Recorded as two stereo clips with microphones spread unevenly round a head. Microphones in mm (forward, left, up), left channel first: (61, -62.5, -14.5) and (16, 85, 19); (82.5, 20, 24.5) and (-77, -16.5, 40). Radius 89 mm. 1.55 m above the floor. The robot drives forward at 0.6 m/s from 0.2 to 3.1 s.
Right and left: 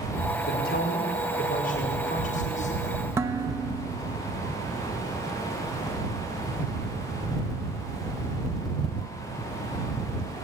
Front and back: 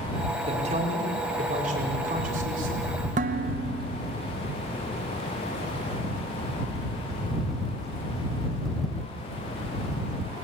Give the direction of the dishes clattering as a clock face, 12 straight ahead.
6 o'clock.